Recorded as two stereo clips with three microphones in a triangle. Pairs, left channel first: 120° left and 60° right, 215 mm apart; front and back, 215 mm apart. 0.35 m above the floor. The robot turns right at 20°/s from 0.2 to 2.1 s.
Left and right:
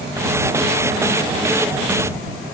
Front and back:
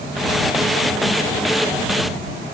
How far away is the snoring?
No snoring in this recording.